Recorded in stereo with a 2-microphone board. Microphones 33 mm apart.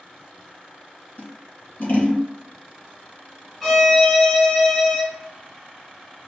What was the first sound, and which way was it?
Scissors, 50° left (ahead or behind).